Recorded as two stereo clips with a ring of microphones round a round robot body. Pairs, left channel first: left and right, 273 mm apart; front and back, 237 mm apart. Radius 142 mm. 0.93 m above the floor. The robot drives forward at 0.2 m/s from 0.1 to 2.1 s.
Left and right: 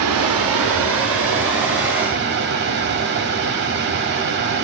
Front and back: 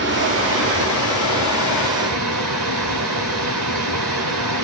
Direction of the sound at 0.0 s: 125° right.